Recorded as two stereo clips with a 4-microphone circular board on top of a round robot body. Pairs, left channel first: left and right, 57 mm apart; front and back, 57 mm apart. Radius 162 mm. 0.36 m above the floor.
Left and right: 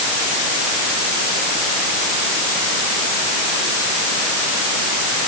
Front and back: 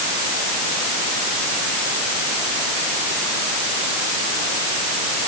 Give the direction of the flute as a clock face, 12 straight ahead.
No flute in this recording.